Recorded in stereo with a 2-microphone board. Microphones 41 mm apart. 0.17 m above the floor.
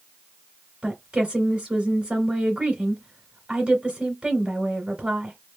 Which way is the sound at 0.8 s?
20° right (ahead or behind).